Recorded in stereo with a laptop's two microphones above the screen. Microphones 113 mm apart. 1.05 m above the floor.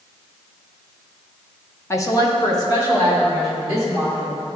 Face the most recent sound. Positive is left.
turn(degrees=35)  # may be behind; listen again after turning